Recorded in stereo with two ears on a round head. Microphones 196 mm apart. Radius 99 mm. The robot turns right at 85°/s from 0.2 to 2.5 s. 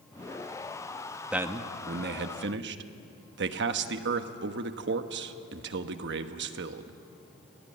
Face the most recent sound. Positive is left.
turn(degrees=-75)